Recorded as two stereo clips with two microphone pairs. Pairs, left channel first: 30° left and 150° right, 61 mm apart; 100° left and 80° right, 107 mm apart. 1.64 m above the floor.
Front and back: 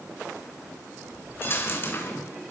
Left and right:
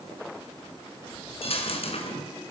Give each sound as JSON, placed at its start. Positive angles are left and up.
{"t": 1.4, "sound": "a dropped coin", "azimuth_deg": 80, "distance_m": 4.5}